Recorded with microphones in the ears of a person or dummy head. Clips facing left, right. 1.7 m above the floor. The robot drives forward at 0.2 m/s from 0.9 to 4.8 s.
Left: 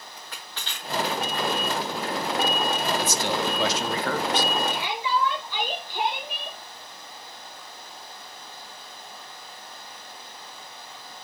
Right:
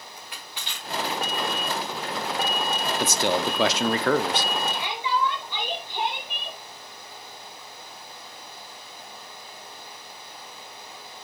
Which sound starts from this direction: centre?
Crushing, at 0.2 s.